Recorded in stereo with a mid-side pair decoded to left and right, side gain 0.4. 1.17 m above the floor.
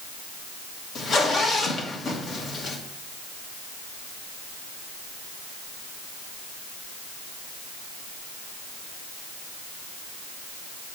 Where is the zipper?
65° left, 1.5 m.